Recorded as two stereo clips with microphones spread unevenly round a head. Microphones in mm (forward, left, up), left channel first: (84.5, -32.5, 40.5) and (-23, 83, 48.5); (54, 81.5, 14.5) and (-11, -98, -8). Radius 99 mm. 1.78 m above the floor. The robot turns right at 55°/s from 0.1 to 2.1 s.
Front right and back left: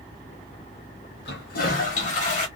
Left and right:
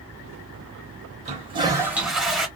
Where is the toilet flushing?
60° right, 1.0 m; by 2.5 s 15° right, 1.0 m.